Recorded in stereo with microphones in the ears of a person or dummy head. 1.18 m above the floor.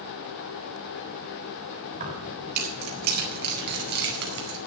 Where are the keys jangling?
50° right (ahead or behind), 6 m; by 4.6 s 65° right (ahead or behind), 4.5 m.